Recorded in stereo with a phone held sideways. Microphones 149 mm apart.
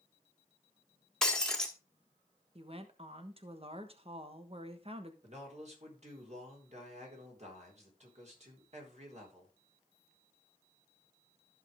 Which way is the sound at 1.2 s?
5° left (ahead or behind).